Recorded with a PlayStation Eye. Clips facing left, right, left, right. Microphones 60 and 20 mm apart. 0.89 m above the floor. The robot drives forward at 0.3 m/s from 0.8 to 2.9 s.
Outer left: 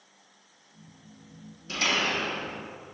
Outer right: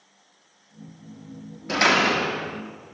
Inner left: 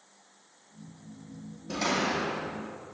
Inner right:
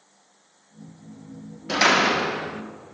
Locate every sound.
1.7 s a door slam: 60° right (ahead or behind), 0.6 m; by 2.6 s 85° right, 0.5 m